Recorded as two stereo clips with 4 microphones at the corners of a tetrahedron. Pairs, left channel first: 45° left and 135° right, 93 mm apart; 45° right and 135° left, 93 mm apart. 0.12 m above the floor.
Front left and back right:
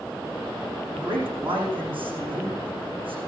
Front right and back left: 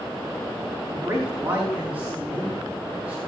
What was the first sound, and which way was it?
A man speaking, 155° right.